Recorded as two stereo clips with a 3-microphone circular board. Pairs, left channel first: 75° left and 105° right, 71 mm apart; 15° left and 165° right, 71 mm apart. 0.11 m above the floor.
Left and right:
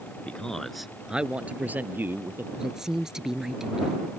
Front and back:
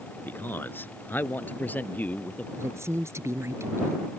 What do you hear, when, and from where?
0.3 s a man speaking: 25° left; by 2.5 s 50° right
2.6 s a woman speaking: 175° left